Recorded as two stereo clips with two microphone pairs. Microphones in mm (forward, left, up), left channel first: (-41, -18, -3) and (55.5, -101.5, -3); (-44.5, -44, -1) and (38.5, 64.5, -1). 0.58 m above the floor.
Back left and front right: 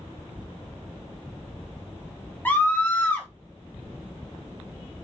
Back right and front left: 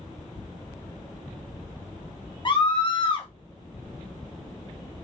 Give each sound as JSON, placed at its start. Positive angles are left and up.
{"t": 2.5, "sound": "a scream", "azimuth_deg": -145, "distance_m": 0.7}